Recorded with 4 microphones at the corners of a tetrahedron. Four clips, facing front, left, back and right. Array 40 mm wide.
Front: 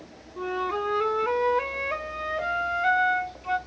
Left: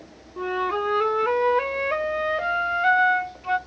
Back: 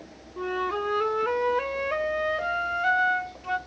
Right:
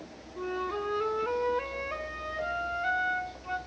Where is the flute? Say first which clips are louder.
Left 8 dB, even; 90° left, 0.5 m.